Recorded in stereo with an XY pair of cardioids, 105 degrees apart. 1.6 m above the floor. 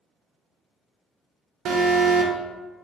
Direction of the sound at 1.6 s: 70° right.